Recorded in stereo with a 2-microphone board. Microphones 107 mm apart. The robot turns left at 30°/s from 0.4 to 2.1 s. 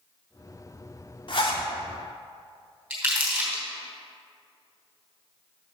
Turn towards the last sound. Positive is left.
turn(degrees=-15)  # may be behind; listen again after turning